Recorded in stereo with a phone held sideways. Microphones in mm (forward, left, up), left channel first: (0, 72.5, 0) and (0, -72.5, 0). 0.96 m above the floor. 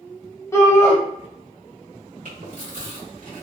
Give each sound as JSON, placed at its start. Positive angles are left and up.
{"t": 0.5, "sound": "a shout", "side_deg": 20, "distance_m": 0.9}
{"t": 2.2, "sound": "chewing", "side_deg": -75, "distance_m": 1.5}